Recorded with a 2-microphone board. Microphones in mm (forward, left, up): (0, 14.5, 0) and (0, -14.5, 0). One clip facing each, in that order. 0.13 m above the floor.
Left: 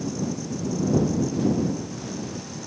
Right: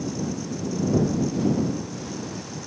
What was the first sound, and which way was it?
Only background noise.